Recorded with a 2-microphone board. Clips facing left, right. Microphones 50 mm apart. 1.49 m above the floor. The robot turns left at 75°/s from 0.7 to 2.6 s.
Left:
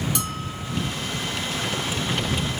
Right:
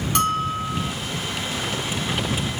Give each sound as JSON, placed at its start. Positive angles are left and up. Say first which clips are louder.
{"t": 0.1, "sound": "a bell", "louder": "right 9 dB", "side_deg": -50}